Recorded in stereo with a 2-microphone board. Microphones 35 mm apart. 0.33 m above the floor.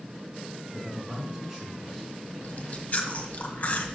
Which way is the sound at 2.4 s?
45° left (ahead or behind).